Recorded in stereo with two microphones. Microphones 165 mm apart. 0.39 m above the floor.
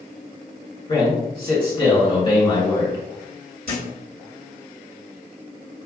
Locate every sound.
0.9 s a man speaking: 35° left (ahead or behind), 2.0 m
3.7 s a thud: 70° left (ahead or behind), 1.6 m